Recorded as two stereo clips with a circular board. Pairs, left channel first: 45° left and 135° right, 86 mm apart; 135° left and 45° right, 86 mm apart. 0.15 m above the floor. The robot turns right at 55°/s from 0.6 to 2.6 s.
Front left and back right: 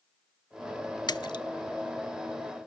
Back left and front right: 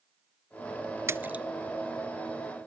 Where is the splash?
15° left, 0.5 m; by 1.4 s 35° left, 0.5 m.